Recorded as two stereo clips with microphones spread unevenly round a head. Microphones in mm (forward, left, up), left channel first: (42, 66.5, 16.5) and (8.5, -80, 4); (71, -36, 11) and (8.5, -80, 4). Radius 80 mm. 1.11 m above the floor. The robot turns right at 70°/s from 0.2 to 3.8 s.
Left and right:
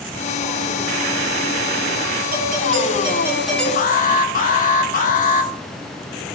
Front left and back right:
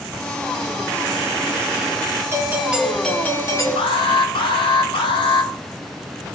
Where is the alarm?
40° left, 1.1 m.